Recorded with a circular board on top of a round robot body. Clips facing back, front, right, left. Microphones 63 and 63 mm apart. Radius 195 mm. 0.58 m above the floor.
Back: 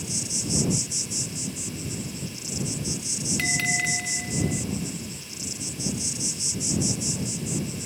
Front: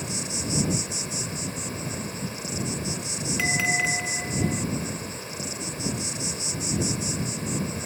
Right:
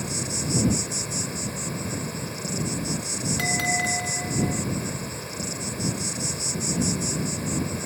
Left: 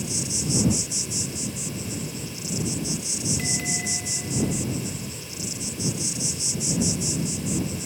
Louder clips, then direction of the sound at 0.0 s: Front 2 dB, even; 50° right.